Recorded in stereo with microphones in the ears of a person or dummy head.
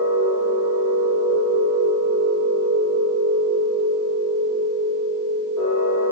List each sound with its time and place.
0.0 s a machine running: 60° left (ahead or behind), 1.2 m